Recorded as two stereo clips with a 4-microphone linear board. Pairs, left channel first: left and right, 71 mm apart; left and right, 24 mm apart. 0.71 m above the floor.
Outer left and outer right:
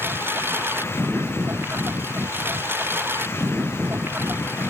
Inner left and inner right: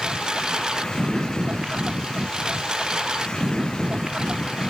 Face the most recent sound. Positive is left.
turn(degrees=-35)  # may be behind; listen again after turning